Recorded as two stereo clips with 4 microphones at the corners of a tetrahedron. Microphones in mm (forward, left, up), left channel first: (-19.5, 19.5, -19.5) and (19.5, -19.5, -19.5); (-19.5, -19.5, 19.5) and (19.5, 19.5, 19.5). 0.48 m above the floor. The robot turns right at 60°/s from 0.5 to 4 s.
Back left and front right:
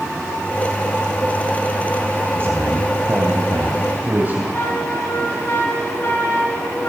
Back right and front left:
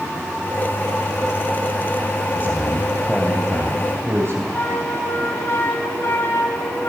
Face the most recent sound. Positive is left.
turn(degrees=180)